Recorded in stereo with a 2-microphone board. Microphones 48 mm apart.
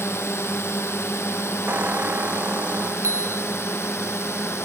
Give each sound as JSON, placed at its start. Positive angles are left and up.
{"t": 0.0, "sound": "a drone", "side_deg": 70}
{"t": 1.7, "sound": "a squeak", "side_deg": -40}
{"t": 3.0, "sound": "a bicycle bell", "side_deg": -85}